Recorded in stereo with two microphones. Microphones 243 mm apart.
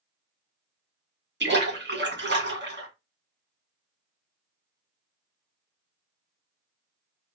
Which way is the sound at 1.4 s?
45° right (ahead or behind).